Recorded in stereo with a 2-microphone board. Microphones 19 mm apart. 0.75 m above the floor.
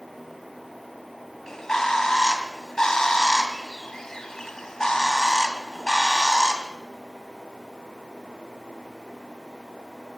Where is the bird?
35° left (ahead or behind), 2.5 m.